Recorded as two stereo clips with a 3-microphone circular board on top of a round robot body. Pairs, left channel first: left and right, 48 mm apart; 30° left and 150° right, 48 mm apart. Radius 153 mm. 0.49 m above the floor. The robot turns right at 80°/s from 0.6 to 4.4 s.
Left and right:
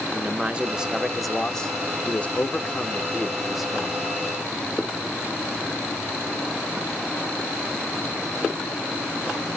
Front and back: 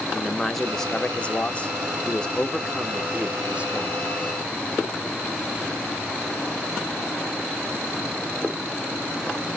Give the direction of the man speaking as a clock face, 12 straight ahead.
2 o'clock.